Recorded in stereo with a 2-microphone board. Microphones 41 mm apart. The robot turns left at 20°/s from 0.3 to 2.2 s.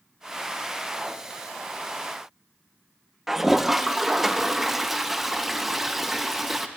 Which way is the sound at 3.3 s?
5° right (ahead or behind).